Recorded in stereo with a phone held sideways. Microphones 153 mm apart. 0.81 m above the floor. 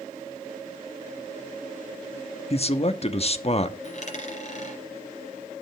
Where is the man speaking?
40° left (ahead or behind), 1.0 m.